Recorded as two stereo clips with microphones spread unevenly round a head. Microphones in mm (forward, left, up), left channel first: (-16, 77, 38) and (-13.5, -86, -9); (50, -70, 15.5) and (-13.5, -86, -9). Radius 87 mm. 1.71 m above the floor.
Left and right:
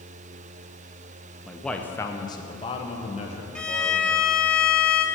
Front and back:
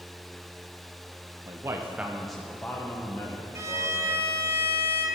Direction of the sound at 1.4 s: 150° left.